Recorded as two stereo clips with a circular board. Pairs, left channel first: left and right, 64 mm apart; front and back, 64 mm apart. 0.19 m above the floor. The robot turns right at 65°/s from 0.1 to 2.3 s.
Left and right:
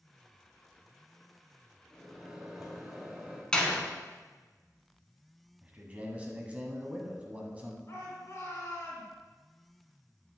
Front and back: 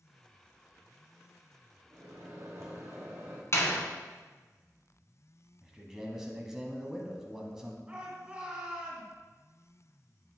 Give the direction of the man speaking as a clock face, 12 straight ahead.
4 o'clock.